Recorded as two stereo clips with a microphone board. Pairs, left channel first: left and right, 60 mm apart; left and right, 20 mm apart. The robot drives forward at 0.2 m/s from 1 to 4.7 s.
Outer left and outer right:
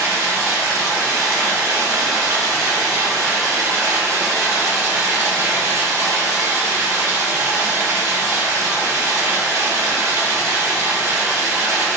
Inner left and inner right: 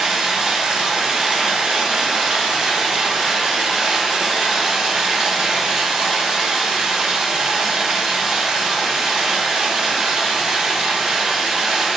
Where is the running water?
65° right (ahead or behind), 0.9 m; by 12.0 s 55° right (ahead or behind), 1.0 m.